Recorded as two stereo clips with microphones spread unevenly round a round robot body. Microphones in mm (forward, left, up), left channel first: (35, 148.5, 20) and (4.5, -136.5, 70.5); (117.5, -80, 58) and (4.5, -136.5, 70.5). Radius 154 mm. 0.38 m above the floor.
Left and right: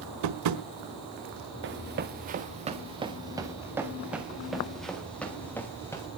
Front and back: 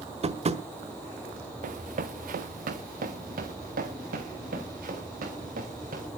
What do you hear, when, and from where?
0.2 s tapping: 120° right, 1.5 m
1.6 s running footsteps: 145° right, 1.8 m; by 6.1 s 165° left, 3.5 m